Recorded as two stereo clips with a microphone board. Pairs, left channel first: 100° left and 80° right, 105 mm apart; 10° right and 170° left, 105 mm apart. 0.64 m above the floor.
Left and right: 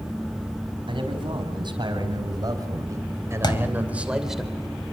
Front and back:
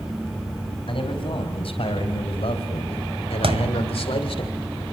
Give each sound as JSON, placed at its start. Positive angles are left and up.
{"t": 0.9, "sound": "a man speaking", "azimuth_deg": -45, "distance_m": 5.5}
{"t": 3.4, "sound": "a thud", "azimuth_deg": 145, "distance_m": 1.6}